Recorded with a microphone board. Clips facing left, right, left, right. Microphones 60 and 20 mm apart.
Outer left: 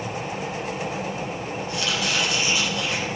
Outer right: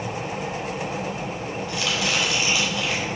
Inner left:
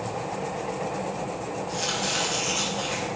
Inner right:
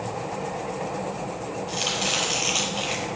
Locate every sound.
1.7 s chopping: 75° right (ahead or behind), 4.5 m